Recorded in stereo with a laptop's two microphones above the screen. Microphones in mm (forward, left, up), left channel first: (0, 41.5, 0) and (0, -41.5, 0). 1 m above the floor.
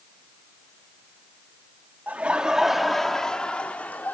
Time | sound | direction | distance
2.1 | laughter | 20° right (ahead or behind) | 1.5 m